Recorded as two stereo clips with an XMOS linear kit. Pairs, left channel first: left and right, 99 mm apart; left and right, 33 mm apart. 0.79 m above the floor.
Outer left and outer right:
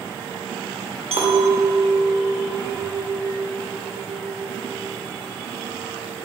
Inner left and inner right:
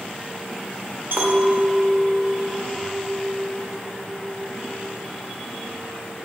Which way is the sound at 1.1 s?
85° right.